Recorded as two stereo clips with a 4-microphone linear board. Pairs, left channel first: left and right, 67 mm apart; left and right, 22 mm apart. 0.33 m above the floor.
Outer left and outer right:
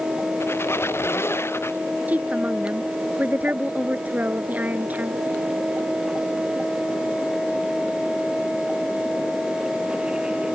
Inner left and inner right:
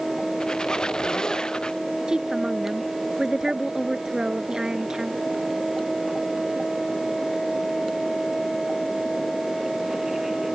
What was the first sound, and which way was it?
A squeak, 35° left (ahead or behind).